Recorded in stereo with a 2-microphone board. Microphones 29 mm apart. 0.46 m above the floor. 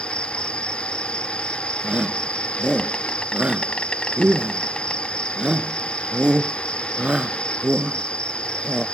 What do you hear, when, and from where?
0.0 s an insect: 35° left (ahead or behind)
1.8 s a shout: 35° right (ahead or behind)